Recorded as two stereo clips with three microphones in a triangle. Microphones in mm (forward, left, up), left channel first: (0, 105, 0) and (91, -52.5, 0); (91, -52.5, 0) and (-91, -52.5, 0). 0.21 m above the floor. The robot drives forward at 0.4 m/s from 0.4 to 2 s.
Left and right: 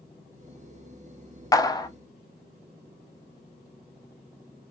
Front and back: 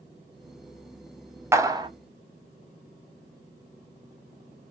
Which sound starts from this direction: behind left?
A clap, at 1.5 s.